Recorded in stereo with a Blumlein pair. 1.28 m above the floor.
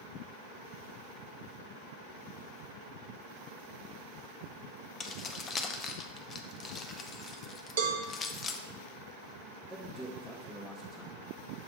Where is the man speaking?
5° left, 1.3 m.